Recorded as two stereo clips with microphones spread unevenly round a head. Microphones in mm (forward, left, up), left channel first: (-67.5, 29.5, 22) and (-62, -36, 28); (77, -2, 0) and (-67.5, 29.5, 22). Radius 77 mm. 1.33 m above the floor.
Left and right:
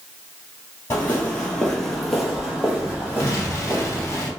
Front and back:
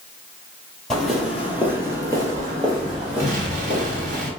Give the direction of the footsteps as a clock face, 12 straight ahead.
9 o'clock.